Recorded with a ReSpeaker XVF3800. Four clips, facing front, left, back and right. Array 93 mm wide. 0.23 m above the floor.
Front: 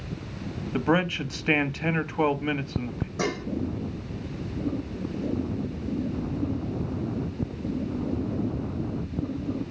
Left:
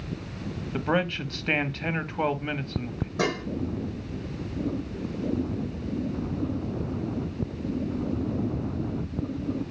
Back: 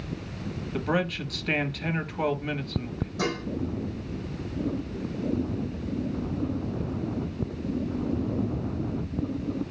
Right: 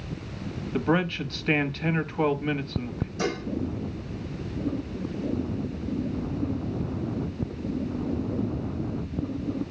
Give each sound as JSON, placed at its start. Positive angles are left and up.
{"t": 0.7, "sound": "a man speaking", "azimuth_deg": 20, "distance_m": 1.0}
{"t": 3.2, "sound": "dishes clattering", "azimuth_deg": 70, "distance_m": 7.5}